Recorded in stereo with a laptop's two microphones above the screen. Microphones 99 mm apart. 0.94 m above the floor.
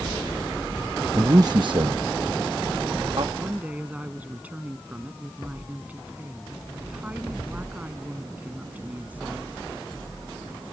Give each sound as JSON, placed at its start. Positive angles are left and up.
{"t": 1.1, "sound": "a man speaking", "side_deg": -30}
{"t": 3.4, "sound": "a woman speaking", "side_deg": -15}